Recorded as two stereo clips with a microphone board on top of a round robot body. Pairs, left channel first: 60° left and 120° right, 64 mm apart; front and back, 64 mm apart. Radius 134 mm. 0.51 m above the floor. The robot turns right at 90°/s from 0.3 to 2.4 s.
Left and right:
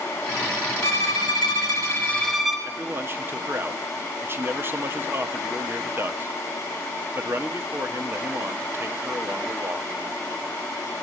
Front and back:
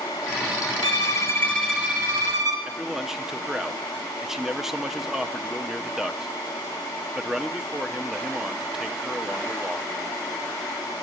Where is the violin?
10° left, 2 m; by 2.6 s 150° left, 2 m.